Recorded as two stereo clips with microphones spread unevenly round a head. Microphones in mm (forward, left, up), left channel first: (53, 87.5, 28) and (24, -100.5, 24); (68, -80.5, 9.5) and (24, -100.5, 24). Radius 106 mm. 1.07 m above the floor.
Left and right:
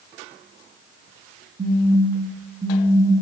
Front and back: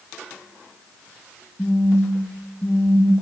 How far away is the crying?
No crying in this recording.